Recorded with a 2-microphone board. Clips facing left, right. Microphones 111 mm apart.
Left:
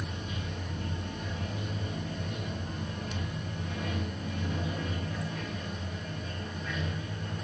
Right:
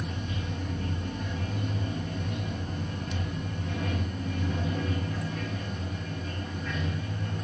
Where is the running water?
40° right (ahead or behind), 3 m.